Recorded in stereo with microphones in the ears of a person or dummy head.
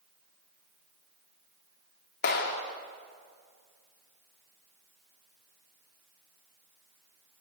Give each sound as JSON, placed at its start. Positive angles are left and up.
{"t": 2.2, "sound": "a clap", "side_deg": 55, "distance_m": 3.0}